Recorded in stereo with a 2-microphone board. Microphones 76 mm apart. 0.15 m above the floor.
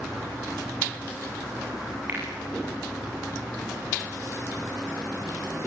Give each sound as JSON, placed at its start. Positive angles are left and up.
{"t": 2.1, "sound": "a finger snap", "side_deg": -20, "distance_m": 8.5}